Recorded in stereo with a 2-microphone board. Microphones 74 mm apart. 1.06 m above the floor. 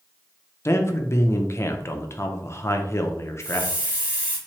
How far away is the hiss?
About 1.1 m.